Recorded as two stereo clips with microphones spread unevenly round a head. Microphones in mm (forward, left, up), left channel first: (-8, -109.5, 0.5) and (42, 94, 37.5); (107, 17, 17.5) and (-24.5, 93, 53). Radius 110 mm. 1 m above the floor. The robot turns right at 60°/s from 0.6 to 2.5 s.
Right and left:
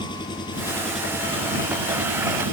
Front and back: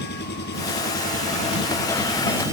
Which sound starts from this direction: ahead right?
An engine running, at 0.0 s.